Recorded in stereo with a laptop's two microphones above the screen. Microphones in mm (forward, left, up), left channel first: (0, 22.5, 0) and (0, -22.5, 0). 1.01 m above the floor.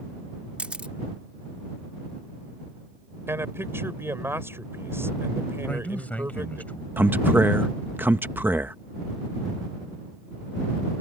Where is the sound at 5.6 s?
35° left (ahead or behind).